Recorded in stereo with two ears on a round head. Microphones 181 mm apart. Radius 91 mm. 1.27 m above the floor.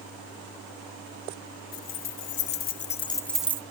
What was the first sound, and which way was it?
Keys jangling, 75° left (ahead or behind).